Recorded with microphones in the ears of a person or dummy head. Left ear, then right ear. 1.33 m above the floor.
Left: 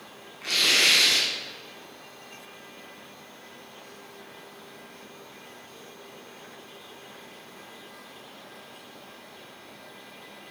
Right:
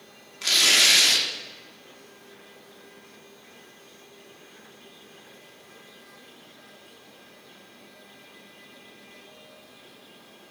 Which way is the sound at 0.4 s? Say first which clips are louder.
Right 2 dB; 90° right.